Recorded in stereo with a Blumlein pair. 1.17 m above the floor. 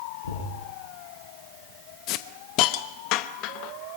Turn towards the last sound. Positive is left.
turn(degrees=40)